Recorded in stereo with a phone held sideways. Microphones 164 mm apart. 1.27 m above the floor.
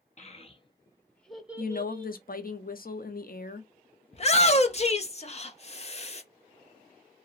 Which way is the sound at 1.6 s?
60° left (ahead or behind).